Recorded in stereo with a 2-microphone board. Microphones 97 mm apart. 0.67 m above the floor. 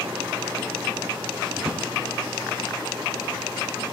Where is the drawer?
10° right (ahead or behind), 0.7 m.